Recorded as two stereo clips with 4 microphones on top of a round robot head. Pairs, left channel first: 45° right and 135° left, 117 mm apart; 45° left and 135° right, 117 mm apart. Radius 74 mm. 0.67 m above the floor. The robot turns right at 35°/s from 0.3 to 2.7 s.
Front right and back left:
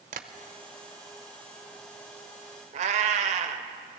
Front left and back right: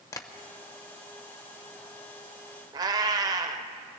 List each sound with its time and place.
0.1 s tapping: 110° left, 0.7 m
2.7 s a cat meowing: 165° left, 0.8 m